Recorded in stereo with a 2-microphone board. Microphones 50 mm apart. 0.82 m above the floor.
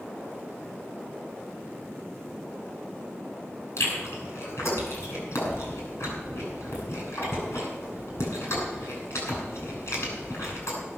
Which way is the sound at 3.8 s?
65° left (ahead or behind).